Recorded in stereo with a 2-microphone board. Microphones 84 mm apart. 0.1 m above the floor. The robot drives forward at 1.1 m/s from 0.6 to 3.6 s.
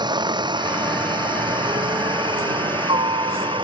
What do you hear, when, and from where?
0.0 s a helicopter: 60° right (ahead or behind); by 3.6 s 70° right (ahead or behind)